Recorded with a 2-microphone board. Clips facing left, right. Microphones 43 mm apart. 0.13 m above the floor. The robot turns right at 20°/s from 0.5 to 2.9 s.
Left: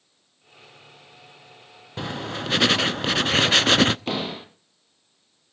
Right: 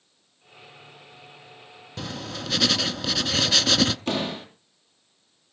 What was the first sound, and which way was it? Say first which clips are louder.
Writing: left 4 dB; 25° left (ahead or behind).